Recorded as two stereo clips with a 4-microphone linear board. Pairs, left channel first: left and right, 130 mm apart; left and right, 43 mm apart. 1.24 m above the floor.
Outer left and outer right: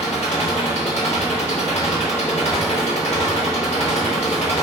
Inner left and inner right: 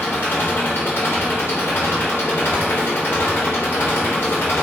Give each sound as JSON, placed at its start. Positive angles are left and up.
{"t": 0.0, "sound": "an engine running", "side_deg": 60, "distance_m": 2.5}